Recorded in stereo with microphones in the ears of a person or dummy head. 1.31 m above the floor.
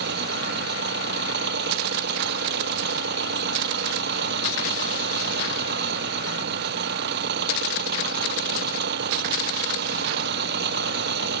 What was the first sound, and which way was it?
An engine running, 65° right (ahead or behind).